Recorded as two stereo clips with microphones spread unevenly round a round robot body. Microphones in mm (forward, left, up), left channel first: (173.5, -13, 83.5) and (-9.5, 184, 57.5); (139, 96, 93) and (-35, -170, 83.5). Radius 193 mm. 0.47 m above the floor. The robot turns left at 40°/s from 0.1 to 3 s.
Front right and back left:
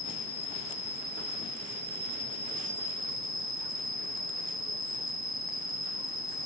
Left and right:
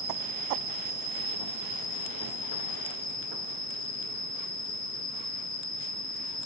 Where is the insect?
95° right, 1.2 m; by 6.5 s 150° left, 1.2 m.